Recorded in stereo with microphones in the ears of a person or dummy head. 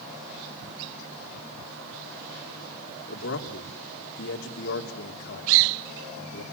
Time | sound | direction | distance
3.1 | a man speaking | 65° left (ahead or behind) | 3 m